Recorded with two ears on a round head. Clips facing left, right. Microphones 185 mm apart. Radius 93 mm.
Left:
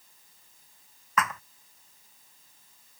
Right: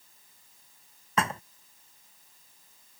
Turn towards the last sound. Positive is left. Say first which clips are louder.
# right 1 dB
turn(degrees=-30)  # may be behind; listen again after turning